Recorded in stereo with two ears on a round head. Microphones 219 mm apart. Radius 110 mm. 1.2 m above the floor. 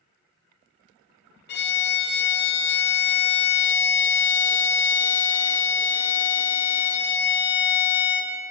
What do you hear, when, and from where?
1.5 s a violin: 45° left (ahead or behind), 0.6 m